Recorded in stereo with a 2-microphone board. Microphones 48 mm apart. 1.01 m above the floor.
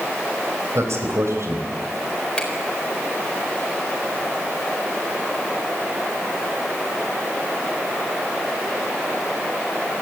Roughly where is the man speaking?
Right.